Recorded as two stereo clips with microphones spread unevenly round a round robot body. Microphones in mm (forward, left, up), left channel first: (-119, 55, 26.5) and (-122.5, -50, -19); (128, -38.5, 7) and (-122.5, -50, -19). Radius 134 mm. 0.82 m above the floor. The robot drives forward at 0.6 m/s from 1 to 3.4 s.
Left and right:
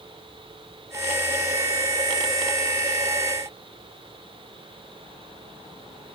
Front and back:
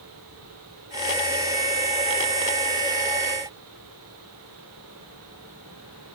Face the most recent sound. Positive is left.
No sound to turn to.